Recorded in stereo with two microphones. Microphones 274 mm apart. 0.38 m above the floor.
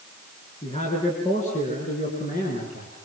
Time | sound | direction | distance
0.6 | a man speaking | 20° left (ahead or behind) | 6 m